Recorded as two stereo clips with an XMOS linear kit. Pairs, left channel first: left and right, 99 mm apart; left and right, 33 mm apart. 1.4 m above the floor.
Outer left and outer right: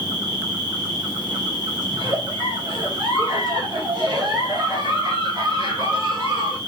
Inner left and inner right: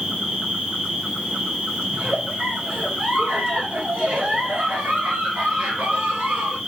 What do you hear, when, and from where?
0.0 s an insect: 45° right (ahead or behind), 2 m
1.9 s a giggle: 50° right (ahead or behind), 2.0 m